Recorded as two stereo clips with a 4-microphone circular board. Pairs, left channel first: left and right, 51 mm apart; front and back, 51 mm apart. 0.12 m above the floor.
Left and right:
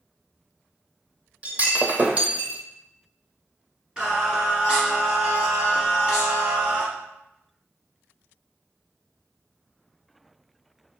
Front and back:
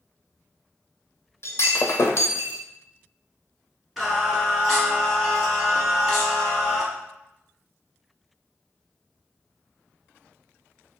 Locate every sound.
1.4 s breaking glass: 30° right, 0.7 m
4.0 s singing: 95° right, 1.4 m